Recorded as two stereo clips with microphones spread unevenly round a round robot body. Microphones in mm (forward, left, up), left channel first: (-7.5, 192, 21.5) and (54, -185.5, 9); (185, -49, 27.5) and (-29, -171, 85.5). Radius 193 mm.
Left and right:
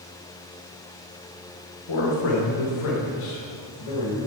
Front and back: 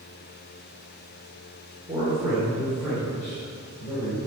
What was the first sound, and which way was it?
A man speaking, 130° left.